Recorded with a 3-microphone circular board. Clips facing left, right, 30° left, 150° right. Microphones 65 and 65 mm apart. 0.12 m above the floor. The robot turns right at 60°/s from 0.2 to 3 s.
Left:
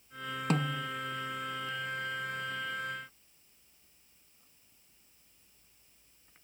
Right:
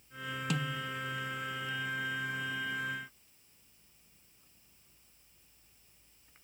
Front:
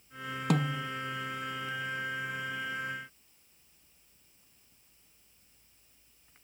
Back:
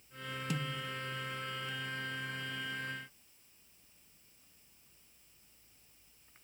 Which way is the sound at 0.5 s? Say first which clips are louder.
Left 5 dB, front 10 dB; 45° left.